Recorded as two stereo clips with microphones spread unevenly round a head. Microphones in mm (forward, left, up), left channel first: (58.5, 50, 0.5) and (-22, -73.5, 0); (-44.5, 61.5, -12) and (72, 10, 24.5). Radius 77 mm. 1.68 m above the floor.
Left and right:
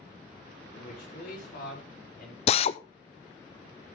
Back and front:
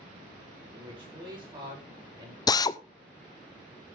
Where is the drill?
90° left, 0.6 m.